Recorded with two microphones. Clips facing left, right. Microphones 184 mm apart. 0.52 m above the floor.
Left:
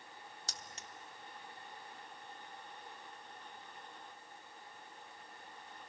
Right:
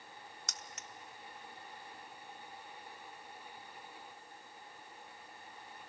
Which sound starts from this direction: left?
Keys jangling, at 0.5 s.